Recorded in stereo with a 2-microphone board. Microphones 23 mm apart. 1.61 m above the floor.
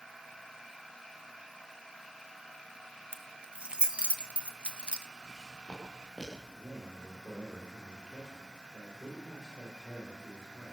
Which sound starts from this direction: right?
Keys jangling, at 3.1 s.